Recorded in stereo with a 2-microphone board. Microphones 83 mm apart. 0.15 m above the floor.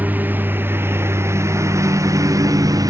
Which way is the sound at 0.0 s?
20° right (ahead or behind).